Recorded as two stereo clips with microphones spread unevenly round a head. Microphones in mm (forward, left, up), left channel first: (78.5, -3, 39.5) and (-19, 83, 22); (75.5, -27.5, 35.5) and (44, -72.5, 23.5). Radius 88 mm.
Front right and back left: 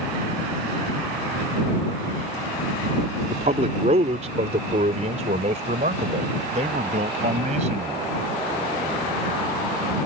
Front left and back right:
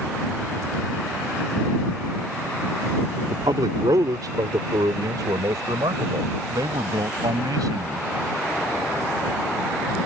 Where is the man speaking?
165° right; by 8.1 s 170° right.